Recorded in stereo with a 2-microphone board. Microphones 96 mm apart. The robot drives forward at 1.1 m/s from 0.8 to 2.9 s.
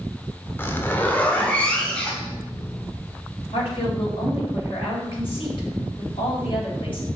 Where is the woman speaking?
55° left (ahead or behind), 3.5 m.